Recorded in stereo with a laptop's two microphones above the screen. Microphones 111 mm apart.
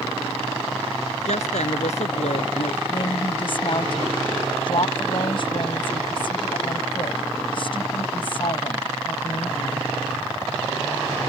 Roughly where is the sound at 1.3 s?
Left.